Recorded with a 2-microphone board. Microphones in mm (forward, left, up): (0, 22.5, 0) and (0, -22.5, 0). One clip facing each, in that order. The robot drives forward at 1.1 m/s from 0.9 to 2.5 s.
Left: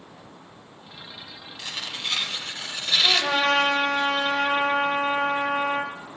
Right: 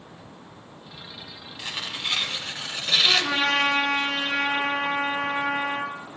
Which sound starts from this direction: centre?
Tearing paper, at 1.6 s.